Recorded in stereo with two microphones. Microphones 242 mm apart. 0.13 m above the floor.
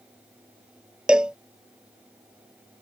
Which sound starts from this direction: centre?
A cowbell, at 1.1 s.